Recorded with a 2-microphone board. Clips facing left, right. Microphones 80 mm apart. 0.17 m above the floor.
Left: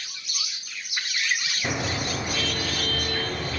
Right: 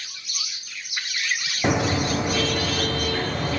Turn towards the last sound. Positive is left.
turn(degrees=-75)  # may be behind; listen again after turning